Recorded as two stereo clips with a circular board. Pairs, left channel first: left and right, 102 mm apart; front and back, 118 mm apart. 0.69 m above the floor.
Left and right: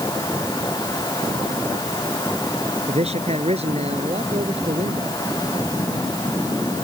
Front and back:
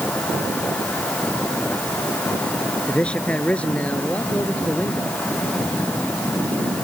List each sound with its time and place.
2.9 s a man speaking: 80° right